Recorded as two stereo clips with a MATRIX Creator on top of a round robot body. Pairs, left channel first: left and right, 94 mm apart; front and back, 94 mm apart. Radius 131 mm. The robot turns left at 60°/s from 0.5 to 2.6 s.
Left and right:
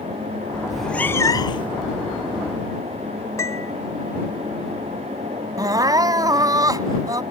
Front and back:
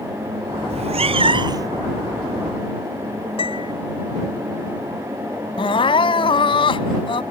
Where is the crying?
35° right.